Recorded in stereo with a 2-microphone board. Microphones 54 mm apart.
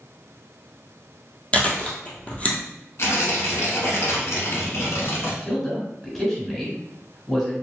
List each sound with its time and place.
1.5 s chewing: 25° left (ahead or behind), 1.2 m
3.0 s tearing paper: 60° left (ahead or behind), 1.3 m
5.4 s a man speaking: 10° left (ahead or behind), 1.8 m